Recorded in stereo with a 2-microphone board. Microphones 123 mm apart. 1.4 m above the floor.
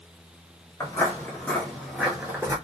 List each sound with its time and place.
0.8 s footsteps: 25° left (ahead or behind), 1.6 m; by 2.5 s 20° right (ahead or behind), 1.5 m